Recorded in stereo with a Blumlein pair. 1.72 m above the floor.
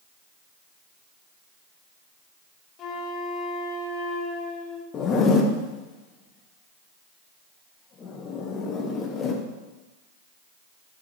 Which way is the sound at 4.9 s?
25° left.